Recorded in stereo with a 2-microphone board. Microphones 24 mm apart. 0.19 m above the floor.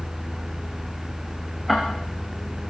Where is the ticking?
5° right (ahead or behind), 8.5 m.